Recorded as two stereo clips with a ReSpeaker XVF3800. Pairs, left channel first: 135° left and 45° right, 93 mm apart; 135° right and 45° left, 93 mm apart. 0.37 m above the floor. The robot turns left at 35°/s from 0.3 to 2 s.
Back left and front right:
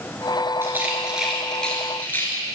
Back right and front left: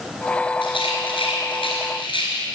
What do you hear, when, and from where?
0.6 s a rattle: 105° right, 1.7 m; by 2.4 s 155° right, 1.7 m